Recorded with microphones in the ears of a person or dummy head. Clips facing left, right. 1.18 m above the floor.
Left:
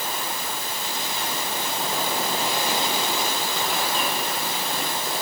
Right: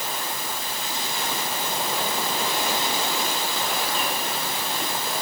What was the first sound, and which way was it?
Only background noise.